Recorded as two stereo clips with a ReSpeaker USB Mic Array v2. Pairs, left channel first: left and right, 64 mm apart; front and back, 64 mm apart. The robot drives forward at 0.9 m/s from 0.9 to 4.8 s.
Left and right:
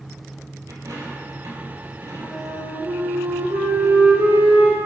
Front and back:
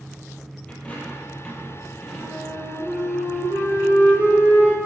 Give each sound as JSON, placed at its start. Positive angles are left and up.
{"t": 0.7, "sound": "a dropped coin", "azimuth_deg": -70, "distance_m": 3.5}
{"t": 2.2, "sound": "a flute", "azimuth_deg": -90, "distance_m": 4.0}